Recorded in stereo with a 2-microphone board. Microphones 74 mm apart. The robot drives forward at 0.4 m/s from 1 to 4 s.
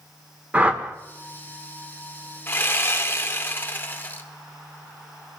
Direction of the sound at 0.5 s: 20° right (ahead or behind).